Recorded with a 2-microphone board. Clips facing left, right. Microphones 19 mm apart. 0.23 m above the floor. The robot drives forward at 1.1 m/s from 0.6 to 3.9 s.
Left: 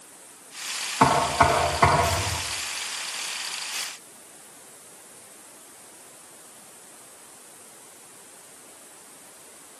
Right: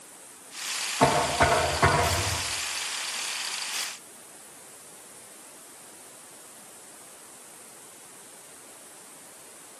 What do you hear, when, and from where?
1.0 s knocking: 35° left (ahead or behind), 8.5 m; by 2.4 s 30° left (ahead or behind), 9.5 m